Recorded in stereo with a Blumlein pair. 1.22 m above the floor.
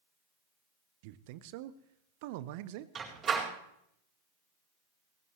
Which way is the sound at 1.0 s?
50° right.